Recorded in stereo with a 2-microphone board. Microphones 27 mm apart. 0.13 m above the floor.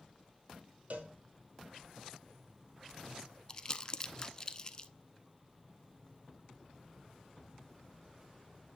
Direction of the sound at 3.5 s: 25° left (ahead or behind).